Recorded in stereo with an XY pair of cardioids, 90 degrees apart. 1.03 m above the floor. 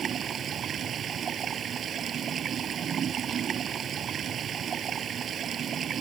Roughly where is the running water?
Ahead right.